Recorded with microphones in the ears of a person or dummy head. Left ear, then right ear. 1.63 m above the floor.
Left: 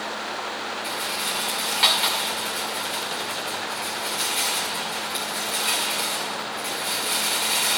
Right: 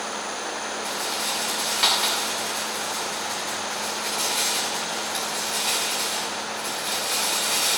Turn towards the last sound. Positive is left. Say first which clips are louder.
# even
turn(degrees=5)  # may be behind; listen again after turning